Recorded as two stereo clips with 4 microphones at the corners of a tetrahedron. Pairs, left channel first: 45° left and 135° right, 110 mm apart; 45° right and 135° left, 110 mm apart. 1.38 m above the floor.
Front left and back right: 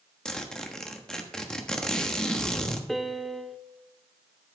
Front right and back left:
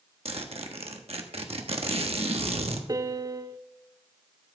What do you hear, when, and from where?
0.2 s a zipper: 125° left, 1.2 m
2.9 s a piano: 130° left, 0.6 m